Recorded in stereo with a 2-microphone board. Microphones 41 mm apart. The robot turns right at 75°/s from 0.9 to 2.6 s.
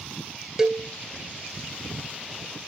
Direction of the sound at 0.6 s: 15° right (ahead or behind).